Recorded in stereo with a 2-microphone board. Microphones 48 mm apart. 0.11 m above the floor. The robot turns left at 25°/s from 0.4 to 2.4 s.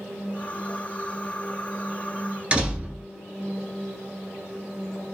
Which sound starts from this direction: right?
A door slam, at 2.5 s.